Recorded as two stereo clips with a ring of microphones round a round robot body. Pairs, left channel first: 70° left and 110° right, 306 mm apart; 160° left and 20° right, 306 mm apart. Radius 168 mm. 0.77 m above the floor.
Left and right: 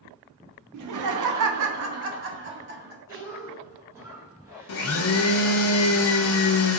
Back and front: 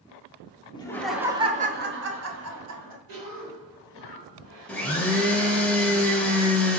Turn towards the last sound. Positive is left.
turn(degrees=75)